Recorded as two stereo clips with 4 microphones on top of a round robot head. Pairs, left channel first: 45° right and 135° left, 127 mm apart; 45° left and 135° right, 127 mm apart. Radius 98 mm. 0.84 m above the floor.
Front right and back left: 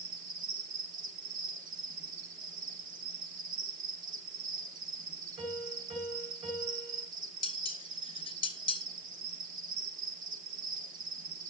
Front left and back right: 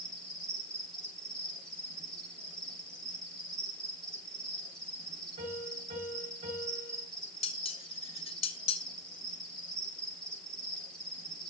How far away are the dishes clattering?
About 3 m.